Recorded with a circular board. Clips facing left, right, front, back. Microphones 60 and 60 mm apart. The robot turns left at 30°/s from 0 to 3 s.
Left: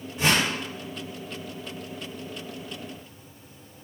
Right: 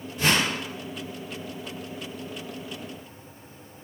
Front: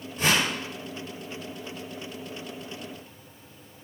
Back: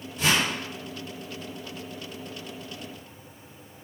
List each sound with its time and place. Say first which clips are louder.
0.2 s a whoosh: even, even; 35° left, 1.3 m; by 0.5 s 25° left, 1.3 m